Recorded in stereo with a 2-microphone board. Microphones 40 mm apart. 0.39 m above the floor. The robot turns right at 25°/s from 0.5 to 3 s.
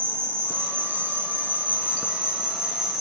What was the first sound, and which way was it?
An insect, 70° right.